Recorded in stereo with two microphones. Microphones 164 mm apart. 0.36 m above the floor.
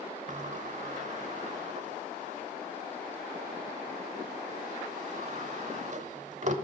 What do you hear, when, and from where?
0.3 s a sliding door: 45° right (ahead or behind), 0.8 m